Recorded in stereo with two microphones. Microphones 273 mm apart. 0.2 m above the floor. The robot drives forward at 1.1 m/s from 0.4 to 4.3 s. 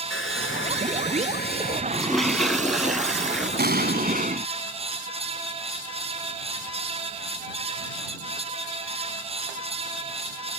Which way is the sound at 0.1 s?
50° left (ahead or behind).